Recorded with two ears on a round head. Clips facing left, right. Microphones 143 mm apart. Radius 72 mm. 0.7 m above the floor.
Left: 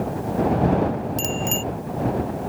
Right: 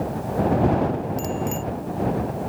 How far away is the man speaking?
I don't hear a man speaking.